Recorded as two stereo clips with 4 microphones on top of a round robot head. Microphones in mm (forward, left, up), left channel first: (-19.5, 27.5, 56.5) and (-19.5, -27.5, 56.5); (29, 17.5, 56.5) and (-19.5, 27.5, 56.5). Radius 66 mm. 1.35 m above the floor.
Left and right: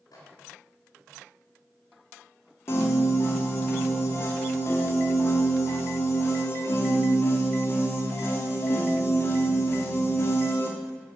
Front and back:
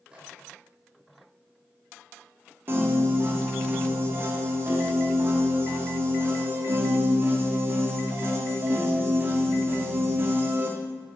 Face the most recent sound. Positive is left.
turn(degrees=130)